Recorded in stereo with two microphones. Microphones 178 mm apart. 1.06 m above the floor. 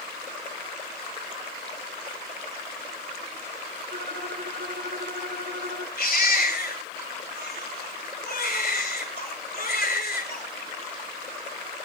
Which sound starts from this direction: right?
A violin, at 3.9 s.